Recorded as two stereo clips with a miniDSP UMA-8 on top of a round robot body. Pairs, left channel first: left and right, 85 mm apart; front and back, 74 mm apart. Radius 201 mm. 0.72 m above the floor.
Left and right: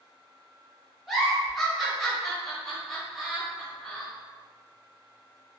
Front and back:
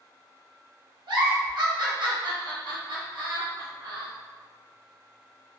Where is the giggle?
Straight behind, 1.3 m.